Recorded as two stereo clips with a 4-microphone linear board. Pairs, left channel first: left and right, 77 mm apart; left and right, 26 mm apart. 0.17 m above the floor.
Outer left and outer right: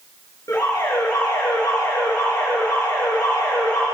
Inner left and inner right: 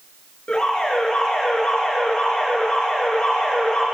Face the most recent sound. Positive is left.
turn(degrees=45)  # may be behind; listen again after turning